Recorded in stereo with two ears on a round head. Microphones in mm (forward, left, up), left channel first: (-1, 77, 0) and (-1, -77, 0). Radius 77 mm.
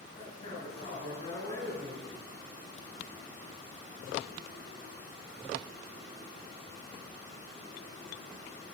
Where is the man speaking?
45° left (ahead or behind), 3 m.